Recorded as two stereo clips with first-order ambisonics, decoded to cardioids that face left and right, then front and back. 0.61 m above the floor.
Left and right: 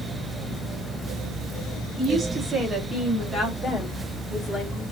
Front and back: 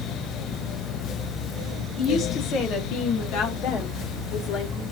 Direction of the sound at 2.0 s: 35° right.